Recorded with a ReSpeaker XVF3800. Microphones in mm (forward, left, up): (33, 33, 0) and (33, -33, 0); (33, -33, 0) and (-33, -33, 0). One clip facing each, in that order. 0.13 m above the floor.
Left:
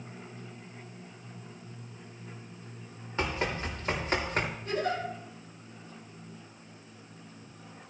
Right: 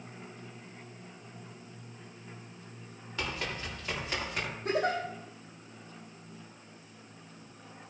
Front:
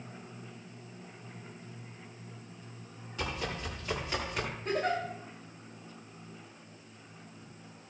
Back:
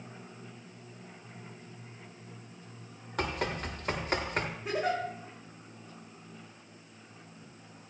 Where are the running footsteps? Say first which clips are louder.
Left 5 dB, back 4 dB; 150° left, 6.5 m; by 4.5 s 135° left, 6 m.